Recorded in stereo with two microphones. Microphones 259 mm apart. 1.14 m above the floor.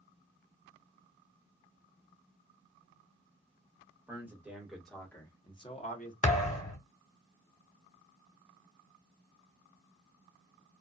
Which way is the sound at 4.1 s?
10° right (ahead or behind).